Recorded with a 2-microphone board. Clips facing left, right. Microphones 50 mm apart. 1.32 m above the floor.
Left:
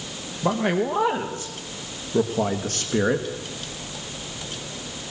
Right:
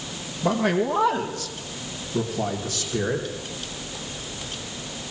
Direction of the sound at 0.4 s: 10° left (ahead or behind).